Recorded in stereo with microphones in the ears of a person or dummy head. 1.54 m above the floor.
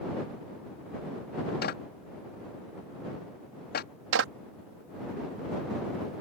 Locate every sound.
1.6 s a clap: 60° left (ahead or behind)
4.1 s a clap: 90° right